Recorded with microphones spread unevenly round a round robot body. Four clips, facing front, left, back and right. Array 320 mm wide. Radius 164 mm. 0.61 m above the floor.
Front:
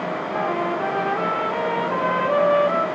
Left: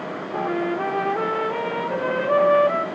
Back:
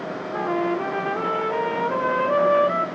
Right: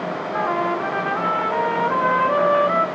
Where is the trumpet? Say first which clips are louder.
Right 2 dB, back 1 dB; 125° left, 0.9 m.